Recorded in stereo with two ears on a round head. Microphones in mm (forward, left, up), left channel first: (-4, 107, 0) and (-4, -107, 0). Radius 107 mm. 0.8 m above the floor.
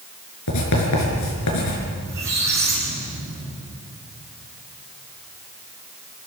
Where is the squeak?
10° right (ahead or behind), 6.5 m.